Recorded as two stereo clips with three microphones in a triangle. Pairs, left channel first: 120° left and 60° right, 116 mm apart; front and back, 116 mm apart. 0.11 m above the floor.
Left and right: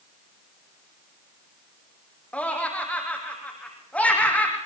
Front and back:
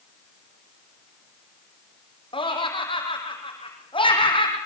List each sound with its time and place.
2.3 s laughter: 40° left, 5 m